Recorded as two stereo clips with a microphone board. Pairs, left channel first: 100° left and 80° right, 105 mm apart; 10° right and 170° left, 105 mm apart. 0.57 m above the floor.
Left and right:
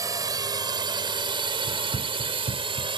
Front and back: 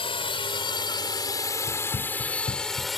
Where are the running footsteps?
50° right; by 2.9 s 35° right.